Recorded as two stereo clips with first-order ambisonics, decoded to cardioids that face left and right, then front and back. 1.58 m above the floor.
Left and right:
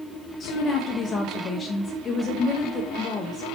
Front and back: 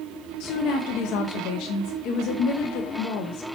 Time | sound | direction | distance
0.4 | a woman speaking | 20° left | 0.6 m